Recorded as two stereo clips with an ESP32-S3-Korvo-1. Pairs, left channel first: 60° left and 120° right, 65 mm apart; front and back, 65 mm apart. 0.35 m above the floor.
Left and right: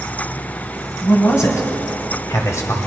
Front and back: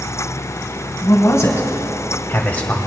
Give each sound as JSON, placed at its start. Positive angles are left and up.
{"t": 1.0, "sound": "a man speaking", "azimuth_deg": 30, "distance_m": 2.0}